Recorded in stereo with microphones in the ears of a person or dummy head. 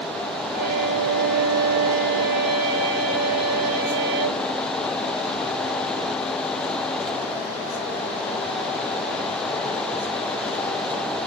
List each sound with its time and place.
0.5 s a violin: 55° right (ahead or behind), 2.5 m